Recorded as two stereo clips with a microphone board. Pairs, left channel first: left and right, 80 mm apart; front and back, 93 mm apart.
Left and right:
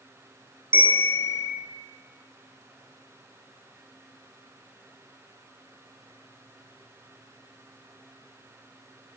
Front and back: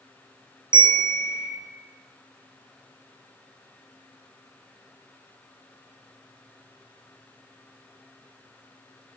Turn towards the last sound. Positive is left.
turn(degrees=-150)